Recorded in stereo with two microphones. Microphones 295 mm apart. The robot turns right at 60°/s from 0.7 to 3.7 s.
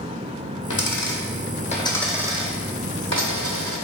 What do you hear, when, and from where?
0.7 s a dropped coin: 80° left, 0.7 m; by 3.8 s 80° right, 0.7 m